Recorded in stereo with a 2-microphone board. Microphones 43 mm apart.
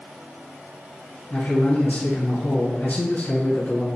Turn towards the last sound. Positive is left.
turn(degrees=50)  # may be behind; listen again after turning